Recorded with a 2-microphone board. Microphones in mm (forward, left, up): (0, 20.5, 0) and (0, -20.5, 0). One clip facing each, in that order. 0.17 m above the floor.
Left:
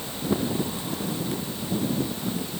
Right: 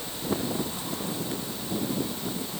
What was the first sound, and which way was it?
Only background noise.